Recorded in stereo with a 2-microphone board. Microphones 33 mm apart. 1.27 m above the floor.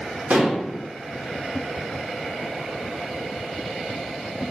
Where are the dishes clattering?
70° right (ahead or behind), 1.0 m.